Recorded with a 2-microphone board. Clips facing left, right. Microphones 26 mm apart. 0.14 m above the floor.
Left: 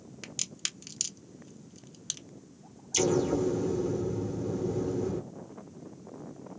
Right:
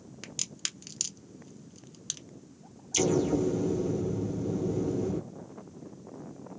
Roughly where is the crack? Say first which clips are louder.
Even; centre.